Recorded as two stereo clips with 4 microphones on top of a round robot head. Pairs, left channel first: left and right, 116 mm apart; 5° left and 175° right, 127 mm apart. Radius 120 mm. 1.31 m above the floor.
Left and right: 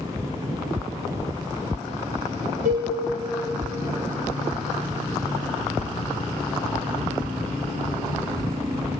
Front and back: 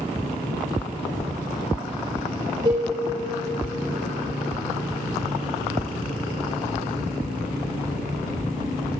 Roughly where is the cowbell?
Right.